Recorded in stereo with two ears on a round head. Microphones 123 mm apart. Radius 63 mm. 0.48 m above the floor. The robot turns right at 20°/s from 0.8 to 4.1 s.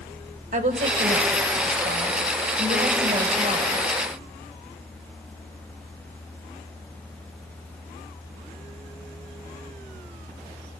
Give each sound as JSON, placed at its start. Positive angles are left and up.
{"t": 0.5, "sound": "a woman speaking", "azimuth_deg": -105, "distance_m": 2.5}